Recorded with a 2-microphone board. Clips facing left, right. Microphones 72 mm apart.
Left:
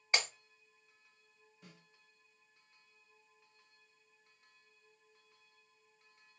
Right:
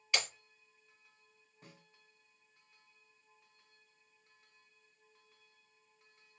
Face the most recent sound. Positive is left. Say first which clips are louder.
# right 1 dB
turn(degrees=-55)  # may be behind; listen again after turning